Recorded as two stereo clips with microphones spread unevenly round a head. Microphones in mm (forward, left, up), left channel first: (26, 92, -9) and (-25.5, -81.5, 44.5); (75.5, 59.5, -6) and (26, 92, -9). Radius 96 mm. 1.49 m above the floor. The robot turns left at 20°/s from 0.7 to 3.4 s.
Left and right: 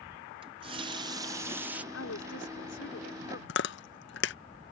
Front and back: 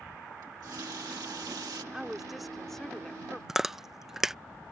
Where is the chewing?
60° left.